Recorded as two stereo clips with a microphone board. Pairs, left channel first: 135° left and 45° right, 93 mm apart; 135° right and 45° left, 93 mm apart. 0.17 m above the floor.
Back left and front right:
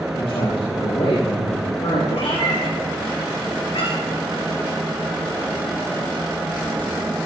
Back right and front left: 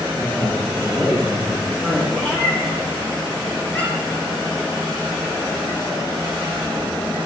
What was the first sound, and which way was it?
A man speaking, 150° left.